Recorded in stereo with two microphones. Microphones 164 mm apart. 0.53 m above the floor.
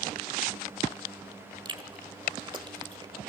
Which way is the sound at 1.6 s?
30° right (ahead or behind).